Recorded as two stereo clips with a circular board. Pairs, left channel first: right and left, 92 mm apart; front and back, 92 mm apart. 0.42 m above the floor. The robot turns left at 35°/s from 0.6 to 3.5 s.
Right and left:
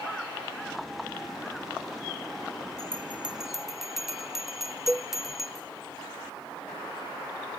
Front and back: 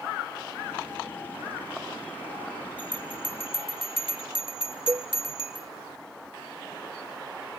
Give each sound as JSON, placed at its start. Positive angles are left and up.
{"t": 2.8, "sound": "a bell", "azimuth_deg": 30, "distance_m": 1.1}
{"t": 4.9, "sound": "a cowbell", "azimuth_deg": 170, "distance_m": 0.6}